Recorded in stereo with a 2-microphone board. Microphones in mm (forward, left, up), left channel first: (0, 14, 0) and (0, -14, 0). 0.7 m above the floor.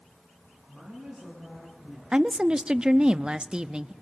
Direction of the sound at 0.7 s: 30° right (ahead or behind).